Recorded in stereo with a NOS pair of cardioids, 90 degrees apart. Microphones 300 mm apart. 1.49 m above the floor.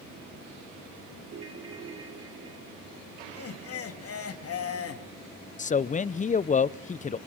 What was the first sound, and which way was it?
A ringtone, 50° right.